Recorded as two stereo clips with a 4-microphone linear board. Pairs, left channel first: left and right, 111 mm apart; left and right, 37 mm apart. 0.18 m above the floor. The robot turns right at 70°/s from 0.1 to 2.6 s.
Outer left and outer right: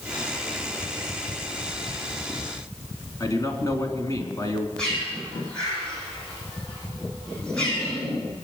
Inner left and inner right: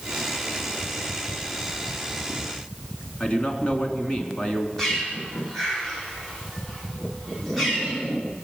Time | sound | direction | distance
3.2 | a man speaking | 30° left (ahead or behind) | 2.5 m
4.8 | a bird | 5° left (ahead or behind) | 7 m